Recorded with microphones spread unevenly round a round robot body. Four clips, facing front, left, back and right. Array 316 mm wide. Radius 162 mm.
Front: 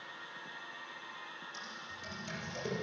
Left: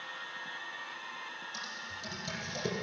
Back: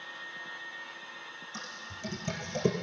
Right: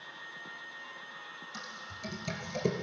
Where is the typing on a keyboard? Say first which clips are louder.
Left 1 dB, back 3 dB; 165° right, 3 m.